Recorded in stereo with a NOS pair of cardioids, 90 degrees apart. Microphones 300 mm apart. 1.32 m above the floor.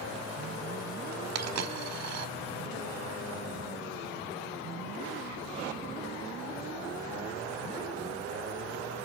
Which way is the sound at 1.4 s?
60° right.